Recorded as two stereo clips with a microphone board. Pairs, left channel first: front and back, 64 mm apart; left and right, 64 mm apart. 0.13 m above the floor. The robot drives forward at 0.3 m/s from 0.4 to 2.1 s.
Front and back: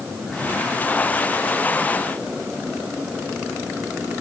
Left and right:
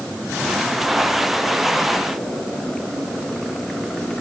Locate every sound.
Only background noise.